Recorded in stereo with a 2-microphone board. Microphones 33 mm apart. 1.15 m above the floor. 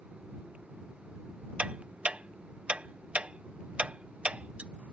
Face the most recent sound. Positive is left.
turn(degrees=-40)  # may be behind; listen again after turning